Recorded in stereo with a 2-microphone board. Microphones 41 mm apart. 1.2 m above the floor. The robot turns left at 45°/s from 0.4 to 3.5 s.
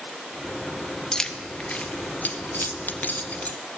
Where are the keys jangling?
20° left (ahead or behind), 0.7 m; by 3.6 s 40° left (ahead or behind), 0.7 m.